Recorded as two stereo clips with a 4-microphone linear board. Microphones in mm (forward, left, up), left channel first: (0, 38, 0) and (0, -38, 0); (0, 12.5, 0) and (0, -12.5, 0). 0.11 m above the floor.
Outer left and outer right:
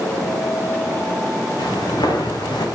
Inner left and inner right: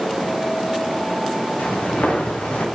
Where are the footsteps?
80° left, 1.7 m; by 2.6 s 75° left (ahead or behind), 1.5 m.